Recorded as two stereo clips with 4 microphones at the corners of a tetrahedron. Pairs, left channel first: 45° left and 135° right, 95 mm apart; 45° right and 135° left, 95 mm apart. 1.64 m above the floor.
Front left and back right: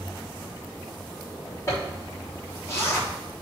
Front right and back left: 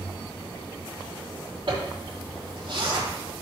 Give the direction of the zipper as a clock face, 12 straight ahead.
9 o'clock.